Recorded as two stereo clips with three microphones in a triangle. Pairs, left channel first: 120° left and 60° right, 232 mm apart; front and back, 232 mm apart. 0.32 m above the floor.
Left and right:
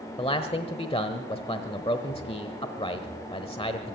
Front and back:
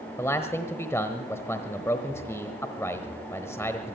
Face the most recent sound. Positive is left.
turn(degrees=70)